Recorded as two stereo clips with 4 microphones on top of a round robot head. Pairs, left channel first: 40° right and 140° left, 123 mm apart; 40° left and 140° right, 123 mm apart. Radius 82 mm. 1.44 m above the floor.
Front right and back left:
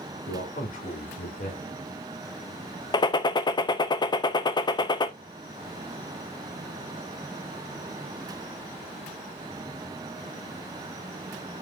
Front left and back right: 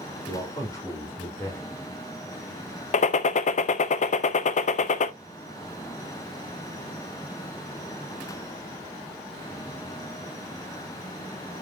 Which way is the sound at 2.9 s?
15° left.